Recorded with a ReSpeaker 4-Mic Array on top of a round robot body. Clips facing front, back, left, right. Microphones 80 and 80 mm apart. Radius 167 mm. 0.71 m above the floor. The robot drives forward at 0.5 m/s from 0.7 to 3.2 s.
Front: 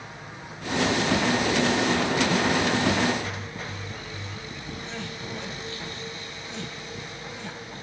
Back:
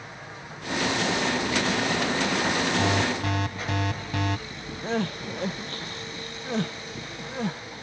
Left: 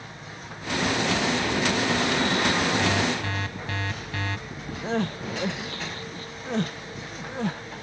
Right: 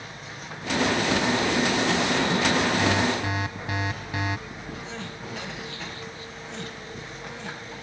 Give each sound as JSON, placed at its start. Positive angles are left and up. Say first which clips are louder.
{"t": 2.8, "sound": "an alarm", "louder": "front 1 dB, right 1 dB", "azimuth_deg": -165}
{"t": 4.8, "sound": "crying", "louder": "back 11 dB, left 9 dB", "azimuth_deg": 135}